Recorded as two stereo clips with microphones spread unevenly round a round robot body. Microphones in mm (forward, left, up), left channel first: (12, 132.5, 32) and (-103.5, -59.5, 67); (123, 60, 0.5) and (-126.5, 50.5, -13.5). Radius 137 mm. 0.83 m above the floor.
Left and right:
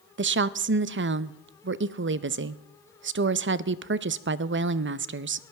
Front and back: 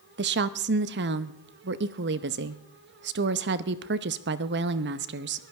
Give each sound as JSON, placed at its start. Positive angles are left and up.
{"t": 0.2, "sound": "a woman speaking", "azimuth_deg": -150, "distance_m": 0.7}